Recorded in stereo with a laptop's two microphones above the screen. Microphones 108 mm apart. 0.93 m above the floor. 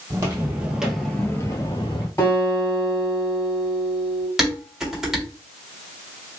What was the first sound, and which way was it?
Footsteps, 30° right (ahead or behind).